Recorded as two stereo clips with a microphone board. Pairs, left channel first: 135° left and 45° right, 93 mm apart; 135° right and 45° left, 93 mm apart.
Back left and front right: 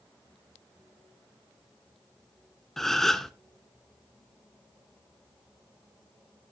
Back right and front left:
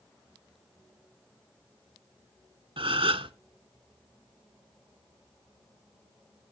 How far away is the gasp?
About 0.7 m.